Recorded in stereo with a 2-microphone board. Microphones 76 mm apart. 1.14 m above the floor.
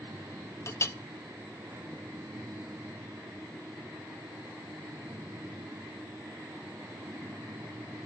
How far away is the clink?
About 0.7 m.